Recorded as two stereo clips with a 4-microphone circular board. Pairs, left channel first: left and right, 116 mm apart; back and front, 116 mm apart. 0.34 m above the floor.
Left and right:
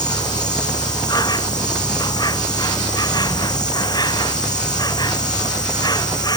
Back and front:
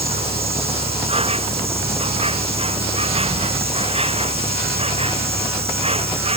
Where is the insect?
35° left.